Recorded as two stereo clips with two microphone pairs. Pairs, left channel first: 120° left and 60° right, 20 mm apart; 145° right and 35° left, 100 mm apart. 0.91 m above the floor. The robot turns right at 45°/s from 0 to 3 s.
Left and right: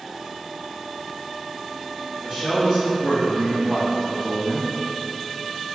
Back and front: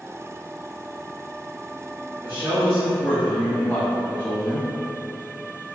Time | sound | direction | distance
2.2 | a man speaking | 105° right | 1.7 m